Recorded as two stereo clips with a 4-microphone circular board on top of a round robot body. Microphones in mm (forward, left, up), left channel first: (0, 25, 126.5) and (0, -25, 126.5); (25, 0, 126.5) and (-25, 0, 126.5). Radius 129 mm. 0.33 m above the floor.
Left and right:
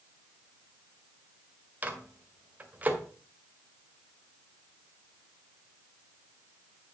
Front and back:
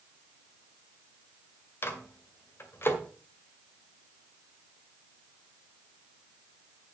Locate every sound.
1.8 s a microwave: 30° right, 2.0 m